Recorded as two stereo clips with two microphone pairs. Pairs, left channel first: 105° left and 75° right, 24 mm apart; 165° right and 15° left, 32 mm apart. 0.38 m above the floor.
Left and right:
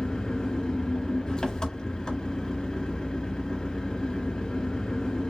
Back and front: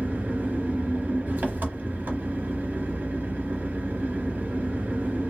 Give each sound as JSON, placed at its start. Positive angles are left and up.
{"t": 0.0, "sound": "an engine running", "azimuth_deg": 40, "distance_m": 1.0}